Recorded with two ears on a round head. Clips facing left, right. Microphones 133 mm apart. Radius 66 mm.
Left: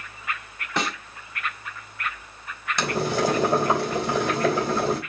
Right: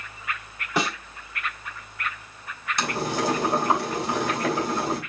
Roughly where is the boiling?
Left.